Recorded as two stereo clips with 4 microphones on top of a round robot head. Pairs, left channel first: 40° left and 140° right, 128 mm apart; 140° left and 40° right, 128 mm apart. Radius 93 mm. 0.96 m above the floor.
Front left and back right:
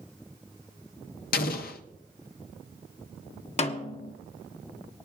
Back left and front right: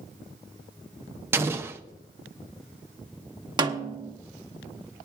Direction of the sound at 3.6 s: 15° left.